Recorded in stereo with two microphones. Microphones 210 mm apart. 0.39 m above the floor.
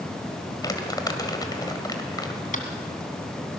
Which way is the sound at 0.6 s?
20° left (ahead or behind).